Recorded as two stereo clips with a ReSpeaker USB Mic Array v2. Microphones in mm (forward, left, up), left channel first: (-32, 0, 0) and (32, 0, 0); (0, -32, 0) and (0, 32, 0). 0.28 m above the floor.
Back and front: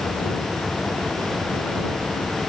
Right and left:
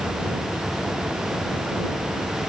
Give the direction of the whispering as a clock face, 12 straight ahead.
I don't hear whispering.